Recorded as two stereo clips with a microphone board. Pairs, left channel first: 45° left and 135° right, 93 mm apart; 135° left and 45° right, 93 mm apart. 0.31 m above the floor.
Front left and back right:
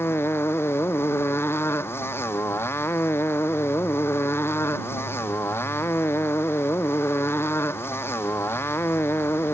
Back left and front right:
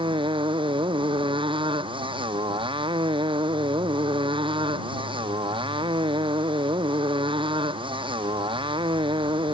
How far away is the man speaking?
No man speaking in this recording.